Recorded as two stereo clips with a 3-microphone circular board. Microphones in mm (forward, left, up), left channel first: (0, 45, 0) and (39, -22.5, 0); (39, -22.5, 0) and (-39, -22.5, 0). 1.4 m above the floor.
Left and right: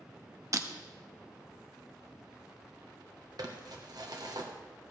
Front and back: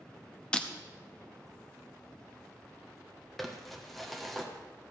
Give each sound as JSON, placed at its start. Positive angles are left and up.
{"t": 0.5, "sound": "breaking glass", "azimuth_deg": -70, "distance_m": 0.9}
{"t": 3.4, "sound": "crumpling", "azimuth_deg": -90, "distance_m": 1.5}